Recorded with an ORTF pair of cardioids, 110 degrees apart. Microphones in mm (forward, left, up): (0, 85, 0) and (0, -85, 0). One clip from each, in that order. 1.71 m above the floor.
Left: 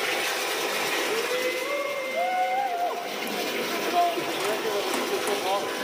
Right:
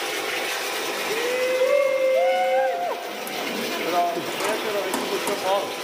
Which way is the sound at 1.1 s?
20° right.